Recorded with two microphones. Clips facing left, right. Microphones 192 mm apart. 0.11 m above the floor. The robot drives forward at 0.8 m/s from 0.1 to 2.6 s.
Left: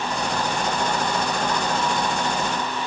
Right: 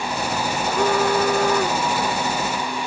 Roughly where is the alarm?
Right.